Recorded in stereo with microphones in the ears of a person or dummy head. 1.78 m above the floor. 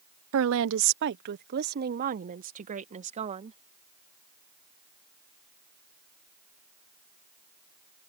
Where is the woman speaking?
80° right; by 3.6 s 35° right (ahead or behind).